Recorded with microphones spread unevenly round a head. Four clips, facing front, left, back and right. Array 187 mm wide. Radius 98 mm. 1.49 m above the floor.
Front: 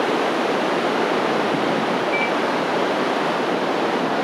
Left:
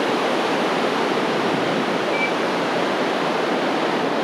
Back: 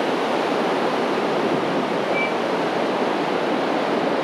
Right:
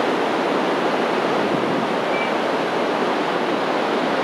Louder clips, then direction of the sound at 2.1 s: Right 1 dB, front 1 dB; 5° right.